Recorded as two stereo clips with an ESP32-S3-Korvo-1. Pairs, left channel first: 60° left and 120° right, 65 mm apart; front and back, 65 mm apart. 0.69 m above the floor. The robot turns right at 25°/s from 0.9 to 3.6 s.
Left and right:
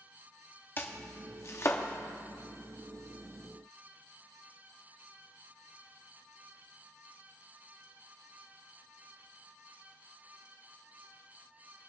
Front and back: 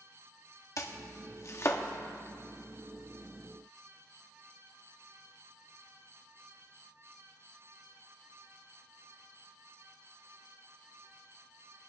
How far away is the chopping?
About 0.9 m.